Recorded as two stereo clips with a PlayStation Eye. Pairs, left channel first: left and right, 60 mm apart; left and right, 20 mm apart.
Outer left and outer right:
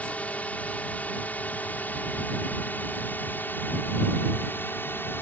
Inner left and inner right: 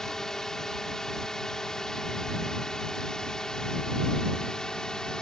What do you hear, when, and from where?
0.0 s a drone: 25° left (ahead or behind); by 5.2 s 35° left (ahead or behind)